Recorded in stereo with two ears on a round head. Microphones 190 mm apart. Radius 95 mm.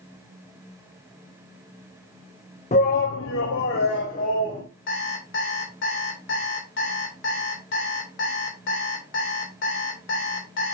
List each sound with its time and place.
2.7 s a shout: 35° left (ahead or behind), 0.9 m
4.9 s an alarm clock: 60° left (ahead or behind), 2.5 m